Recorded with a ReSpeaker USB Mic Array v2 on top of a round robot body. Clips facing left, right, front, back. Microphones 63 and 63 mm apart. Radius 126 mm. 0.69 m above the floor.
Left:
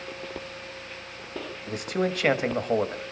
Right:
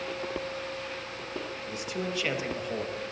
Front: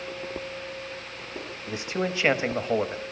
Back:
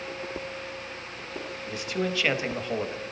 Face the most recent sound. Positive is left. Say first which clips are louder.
# left 8 dB, front 1 dB
turn(degrees=65)